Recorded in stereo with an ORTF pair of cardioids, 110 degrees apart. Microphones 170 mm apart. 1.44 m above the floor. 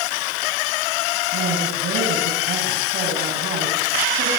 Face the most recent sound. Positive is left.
turn(degrees=-65)